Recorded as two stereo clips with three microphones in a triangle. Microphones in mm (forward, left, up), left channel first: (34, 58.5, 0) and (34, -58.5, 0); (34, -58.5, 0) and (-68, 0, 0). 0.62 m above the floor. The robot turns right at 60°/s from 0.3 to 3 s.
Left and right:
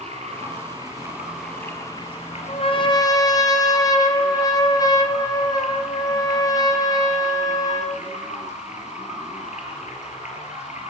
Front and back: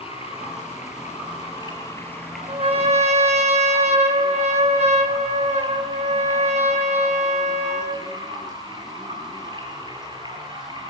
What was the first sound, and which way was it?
Running water, 65° right.